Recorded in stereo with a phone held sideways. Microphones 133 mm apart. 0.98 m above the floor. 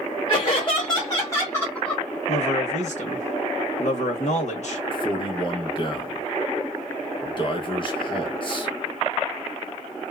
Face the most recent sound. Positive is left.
turn(degrees=40)  # may be behind; listen again after turning